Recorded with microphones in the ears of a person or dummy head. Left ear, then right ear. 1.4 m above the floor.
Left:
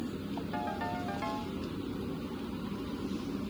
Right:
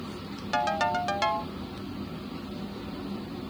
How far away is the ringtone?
About 0.6 m.